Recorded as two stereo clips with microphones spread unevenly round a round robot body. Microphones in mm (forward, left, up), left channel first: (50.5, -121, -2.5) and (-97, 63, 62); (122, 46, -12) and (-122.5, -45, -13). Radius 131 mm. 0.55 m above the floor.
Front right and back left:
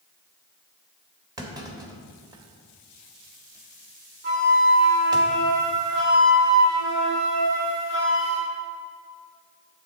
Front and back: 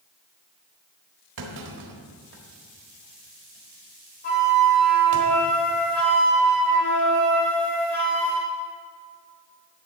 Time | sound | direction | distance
1.4 | a clunk | 155° right | 1.6 m
4.2 | a flute | 75° left | 3 m